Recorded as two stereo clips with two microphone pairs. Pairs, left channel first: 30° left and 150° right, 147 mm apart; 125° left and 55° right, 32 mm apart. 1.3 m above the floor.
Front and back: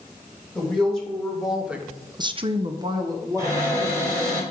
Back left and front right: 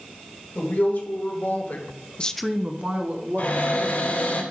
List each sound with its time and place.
0.6 s a woman speaking: 115° left, 2.5 m; by 4.4 s 80° right, 3 m
3.4 s a cupboard door: 145° left, 3 m